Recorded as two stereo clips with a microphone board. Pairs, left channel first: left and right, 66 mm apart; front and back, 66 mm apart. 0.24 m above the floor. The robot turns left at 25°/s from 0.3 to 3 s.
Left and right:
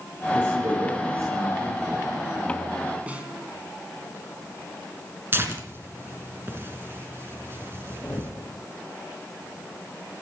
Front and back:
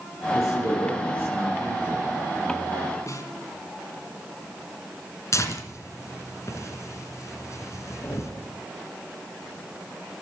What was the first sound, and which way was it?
A man speaking, 30° right.